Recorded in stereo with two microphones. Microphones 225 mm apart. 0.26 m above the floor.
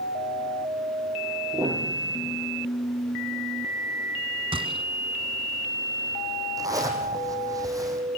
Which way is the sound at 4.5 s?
25° right (ahead or behind).